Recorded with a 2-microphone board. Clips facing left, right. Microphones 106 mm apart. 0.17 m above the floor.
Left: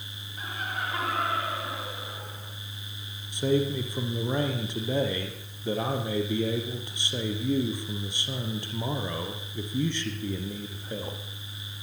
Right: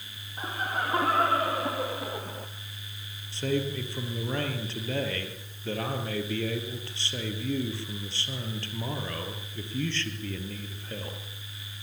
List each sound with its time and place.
0.4 s laughter: 35° right (ahead or behind), 5 m; by 2.5 s 60° right (ahead or behind), 3 m
3.3 s a man speaking: 15° left (ahead or behind), 4 m